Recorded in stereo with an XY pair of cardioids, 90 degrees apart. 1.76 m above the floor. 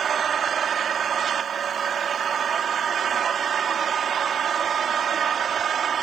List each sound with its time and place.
0.0 s an engine running: 60° right